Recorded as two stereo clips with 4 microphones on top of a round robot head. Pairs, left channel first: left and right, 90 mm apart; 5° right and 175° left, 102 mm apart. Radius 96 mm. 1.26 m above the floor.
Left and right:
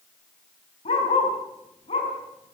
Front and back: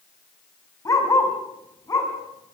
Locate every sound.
0.8 s a dog barking: 55° left, 4.5 m